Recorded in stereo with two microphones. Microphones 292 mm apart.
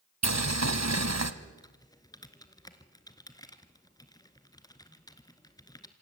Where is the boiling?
65° right (ahead or behind), 1.3 m.